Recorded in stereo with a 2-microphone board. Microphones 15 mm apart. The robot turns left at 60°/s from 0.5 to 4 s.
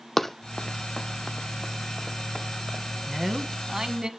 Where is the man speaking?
5° right, 1.5 m; by 4.1 s 60° right, 1.5 m.